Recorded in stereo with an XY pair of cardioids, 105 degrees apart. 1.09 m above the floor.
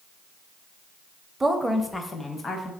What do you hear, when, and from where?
1.4 s a woman speaking: 15° right, 0.5 m; by 2.7 s 40° left, 0.9 m